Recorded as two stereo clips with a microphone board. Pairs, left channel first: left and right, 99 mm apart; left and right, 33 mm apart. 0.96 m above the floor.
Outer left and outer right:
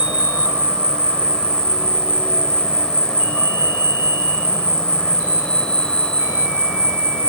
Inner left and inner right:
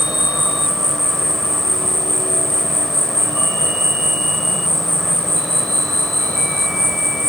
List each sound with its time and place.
0.0 s an insect: 10° left (ahead or behind), 1.9 m